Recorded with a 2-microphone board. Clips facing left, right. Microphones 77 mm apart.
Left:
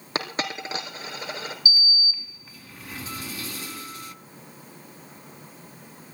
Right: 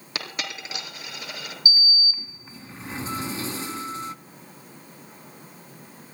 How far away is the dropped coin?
About 3 m.